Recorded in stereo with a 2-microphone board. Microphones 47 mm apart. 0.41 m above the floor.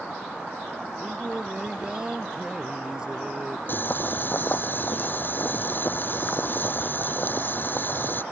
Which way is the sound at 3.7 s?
45° left (ahead or behind).